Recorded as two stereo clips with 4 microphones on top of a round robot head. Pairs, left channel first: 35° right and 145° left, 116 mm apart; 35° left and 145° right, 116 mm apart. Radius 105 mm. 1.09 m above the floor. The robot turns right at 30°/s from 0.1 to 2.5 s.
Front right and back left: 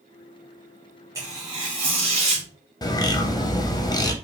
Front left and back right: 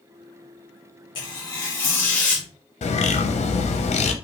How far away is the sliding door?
No sliding door in this recording.